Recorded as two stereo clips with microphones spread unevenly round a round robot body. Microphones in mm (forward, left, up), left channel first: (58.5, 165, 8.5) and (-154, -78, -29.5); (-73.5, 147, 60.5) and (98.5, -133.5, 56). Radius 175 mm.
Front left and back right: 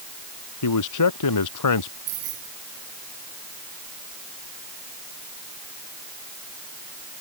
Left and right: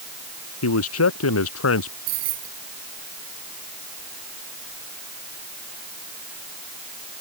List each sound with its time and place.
0.6 s a man speaking: 75° left
2.1 s keys jangling: 70° right